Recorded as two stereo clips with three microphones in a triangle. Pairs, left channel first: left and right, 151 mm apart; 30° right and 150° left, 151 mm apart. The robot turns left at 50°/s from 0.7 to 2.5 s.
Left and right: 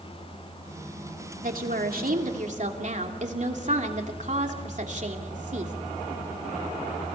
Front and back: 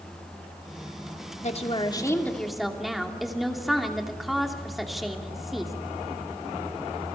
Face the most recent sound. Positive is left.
turn(degrees=-120)